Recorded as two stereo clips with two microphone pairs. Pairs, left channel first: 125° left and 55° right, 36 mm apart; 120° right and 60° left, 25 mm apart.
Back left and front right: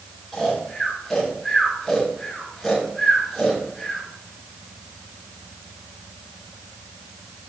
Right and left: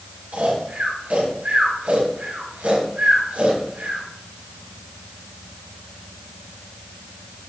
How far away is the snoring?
About 4.5 m.